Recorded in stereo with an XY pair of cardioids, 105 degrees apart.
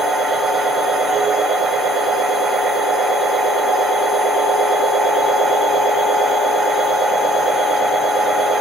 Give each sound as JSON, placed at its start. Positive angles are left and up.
{"t": 0.0, "sound": "a machine running", "azimuth_deg": -65, "distance_m": 1.4}